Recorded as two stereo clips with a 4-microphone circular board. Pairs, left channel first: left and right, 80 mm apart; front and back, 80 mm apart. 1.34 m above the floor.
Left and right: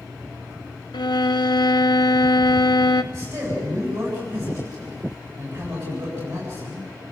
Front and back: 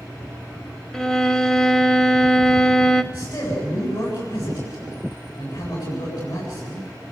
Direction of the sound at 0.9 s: 85° left.